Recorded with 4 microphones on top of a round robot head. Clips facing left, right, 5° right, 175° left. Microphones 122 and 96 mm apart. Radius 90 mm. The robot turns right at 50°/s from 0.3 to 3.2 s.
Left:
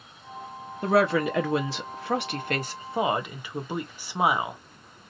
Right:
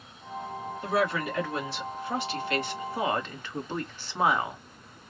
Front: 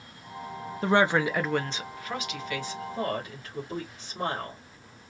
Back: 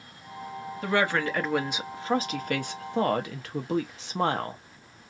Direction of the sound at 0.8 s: 50° left.